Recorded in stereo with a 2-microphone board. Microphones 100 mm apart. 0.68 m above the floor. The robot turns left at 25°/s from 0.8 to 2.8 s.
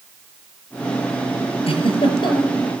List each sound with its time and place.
1.7 s a giggle: 75° left (ahead or behind), 6 m; by 2.6 s 50° left (ahead or behind), 6 m